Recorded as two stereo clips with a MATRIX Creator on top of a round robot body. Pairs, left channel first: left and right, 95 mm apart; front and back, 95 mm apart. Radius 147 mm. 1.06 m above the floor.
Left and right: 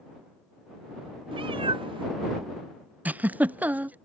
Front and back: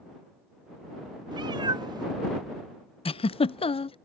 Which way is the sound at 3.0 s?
15° right.